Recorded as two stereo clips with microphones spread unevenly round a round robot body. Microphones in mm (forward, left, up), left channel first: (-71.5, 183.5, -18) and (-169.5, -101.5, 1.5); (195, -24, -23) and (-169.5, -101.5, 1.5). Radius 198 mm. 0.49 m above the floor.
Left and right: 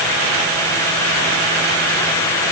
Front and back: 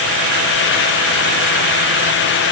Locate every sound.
Only background noise.